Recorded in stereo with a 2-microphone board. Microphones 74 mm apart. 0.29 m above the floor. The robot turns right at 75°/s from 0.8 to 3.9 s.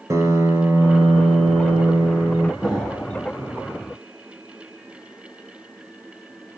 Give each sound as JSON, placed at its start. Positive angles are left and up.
{"t": 0.1, "sound": "a piano", "azimuth_deg": -135, "distance_m": 0.6}
{"t": 2.6, "sound": "an explosion", "azimuth_deg": -5, "distance_m": 1.3}